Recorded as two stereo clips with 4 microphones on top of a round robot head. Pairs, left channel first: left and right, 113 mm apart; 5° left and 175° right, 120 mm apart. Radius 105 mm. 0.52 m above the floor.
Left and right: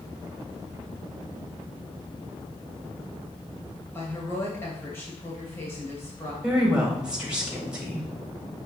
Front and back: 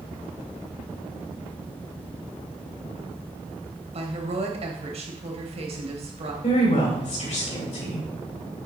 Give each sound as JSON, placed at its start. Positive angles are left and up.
{"t": 3.9, "sound": "a woman speaking", "azimuth_deg": 160, "distance_m": 2.5}
{"t": 6.4, "sound": "a woman speaking", "azimuth_deg": -10, "distance_m": 3.5}